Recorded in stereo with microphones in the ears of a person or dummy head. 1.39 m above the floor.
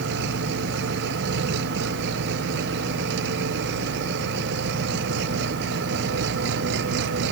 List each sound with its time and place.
0.0 s an engine running: 60° right (ahead or behind)